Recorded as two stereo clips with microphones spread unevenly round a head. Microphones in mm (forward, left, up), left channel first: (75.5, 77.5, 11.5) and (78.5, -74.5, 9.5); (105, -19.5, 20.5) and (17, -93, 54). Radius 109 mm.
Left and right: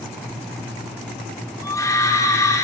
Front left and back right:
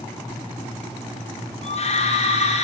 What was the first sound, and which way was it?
A scream, 25° left.